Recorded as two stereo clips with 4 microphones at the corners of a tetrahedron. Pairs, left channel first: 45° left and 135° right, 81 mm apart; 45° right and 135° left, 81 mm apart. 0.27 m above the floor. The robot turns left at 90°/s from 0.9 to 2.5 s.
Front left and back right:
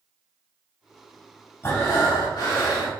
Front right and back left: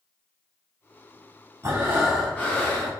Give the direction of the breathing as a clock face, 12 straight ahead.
9 o'clock.